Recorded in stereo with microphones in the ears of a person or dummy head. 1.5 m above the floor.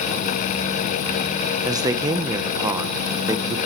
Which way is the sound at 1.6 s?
15° right (ahead or behind).